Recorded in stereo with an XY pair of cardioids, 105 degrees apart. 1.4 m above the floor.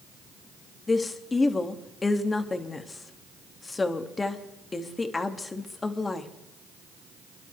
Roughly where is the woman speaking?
Ahead left.